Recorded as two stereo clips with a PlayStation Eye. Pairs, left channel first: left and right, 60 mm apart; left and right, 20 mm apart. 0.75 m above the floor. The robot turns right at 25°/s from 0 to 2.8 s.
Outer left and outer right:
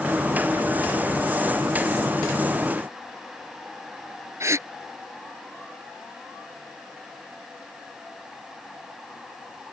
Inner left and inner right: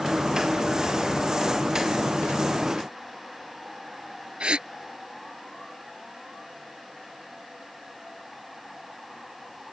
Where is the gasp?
50° right (ahead or behind).